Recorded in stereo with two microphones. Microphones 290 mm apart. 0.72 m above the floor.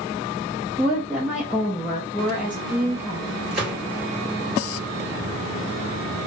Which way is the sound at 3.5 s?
30° left (ahead or behind).